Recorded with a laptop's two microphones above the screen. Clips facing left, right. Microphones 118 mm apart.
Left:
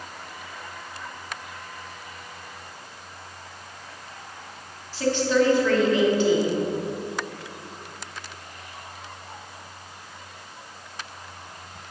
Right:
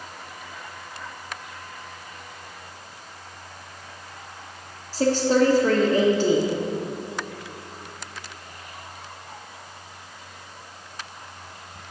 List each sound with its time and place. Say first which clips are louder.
4.9 s a woman speaking: right 2 dB; 40° right (ahead or behind), 1.1 m